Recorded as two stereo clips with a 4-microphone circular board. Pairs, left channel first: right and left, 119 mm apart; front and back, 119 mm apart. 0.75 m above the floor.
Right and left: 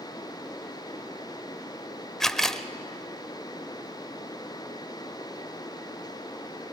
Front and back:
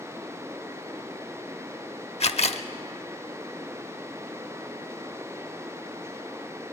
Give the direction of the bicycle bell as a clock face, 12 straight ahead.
No bicycle bell in this recording.